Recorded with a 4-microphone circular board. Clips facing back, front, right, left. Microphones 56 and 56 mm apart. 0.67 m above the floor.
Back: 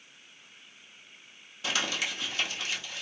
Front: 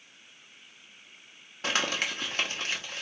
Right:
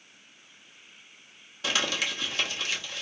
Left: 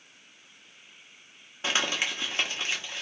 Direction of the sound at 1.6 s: 40° left.